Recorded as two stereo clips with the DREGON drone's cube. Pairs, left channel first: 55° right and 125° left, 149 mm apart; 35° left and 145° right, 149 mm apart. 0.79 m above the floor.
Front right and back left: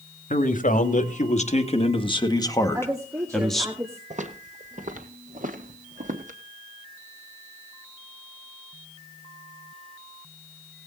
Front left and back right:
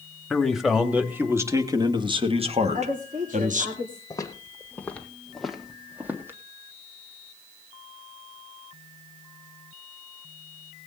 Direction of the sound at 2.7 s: 170° right.